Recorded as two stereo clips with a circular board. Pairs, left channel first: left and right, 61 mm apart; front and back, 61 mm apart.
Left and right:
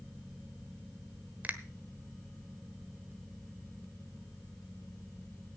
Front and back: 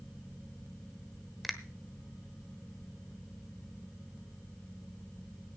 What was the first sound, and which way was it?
A finger snap, 95° right.